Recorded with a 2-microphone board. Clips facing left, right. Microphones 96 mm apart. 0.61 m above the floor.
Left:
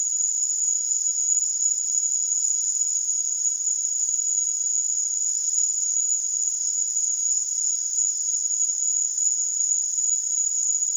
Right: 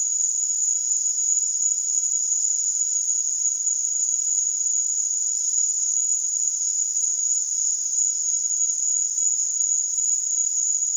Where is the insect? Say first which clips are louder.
Right 1 dB; 50° left (ahead or behind), 3 m.